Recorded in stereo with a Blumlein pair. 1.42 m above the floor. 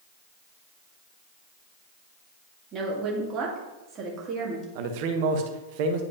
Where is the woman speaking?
25° right, 2.5 m.